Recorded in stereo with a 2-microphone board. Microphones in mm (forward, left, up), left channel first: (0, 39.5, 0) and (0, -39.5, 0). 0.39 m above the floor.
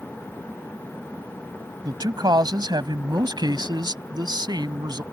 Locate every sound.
1.9 s a man speaking: 60° right (ahead or behind)